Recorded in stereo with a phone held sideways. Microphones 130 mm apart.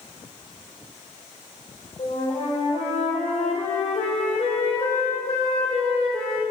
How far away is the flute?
About 3 m.